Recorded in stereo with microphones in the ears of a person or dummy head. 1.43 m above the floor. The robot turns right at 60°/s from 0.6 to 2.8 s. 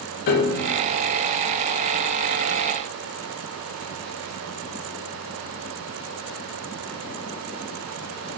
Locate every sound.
0.3 s a piano: 55° left (ahead or behind), 1.0 m; by 0.7 s 50° left (ahead or behind), 1.0 m